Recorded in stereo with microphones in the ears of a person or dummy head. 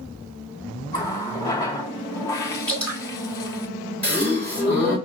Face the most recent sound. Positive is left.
turn(degrees=10)  # may be behind; listen again after turning